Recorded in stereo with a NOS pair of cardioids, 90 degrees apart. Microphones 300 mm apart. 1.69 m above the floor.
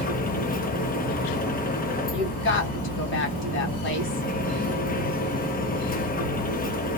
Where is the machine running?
30° left, 0.8 m.